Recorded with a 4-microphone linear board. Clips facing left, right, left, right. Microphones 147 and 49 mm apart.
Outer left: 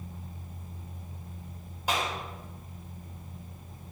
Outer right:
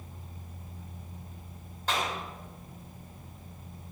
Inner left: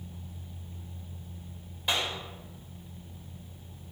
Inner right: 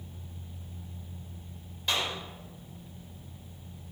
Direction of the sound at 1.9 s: 10° left (ahead or behind).